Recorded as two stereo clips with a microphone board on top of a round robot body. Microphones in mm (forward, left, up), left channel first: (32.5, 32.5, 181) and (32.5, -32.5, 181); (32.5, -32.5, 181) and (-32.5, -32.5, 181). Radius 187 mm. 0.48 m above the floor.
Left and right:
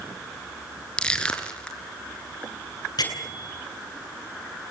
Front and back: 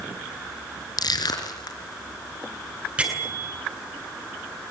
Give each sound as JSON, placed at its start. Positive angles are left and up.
{"t": 1.0, "sound": "crushing", "azimuth_deg": 15, "distance_m": 4.0}
{"t": 3.0, "sound": "a bell", "azimuth_deg": 105, "distance_m": 8.5}